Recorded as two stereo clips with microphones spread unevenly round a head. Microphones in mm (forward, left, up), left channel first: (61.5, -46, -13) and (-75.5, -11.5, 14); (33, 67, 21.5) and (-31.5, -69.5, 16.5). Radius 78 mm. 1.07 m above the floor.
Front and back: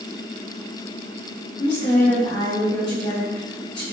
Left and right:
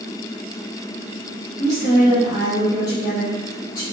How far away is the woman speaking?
About 1.5 m.